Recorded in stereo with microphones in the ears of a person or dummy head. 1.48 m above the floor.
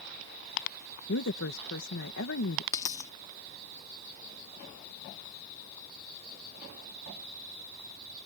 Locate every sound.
1.1 s a woman speaking: 75° left (ahead or behind)
2.7 s a dropped coin: 15° left (ahead or behind)